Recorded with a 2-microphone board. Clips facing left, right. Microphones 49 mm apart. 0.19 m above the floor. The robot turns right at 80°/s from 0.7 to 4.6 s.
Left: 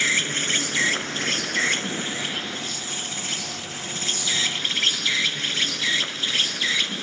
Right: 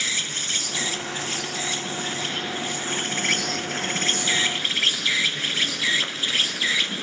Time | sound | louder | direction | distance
0.0 | an insect | left 5 dB | 40° left | 1.1 m